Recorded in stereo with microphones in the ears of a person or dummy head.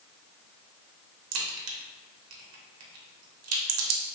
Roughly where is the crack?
Right.